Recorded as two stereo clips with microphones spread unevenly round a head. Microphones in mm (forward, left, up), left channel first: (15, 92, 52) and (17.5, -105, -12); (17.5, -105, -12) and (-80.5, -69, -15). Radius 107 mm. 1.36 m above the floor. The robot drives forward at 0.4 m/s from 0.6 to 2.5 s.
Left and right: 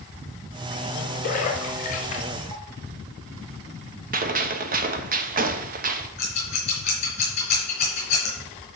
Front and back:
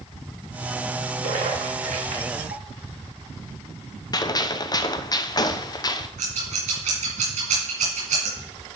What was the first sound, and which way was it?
A splash, 140° left.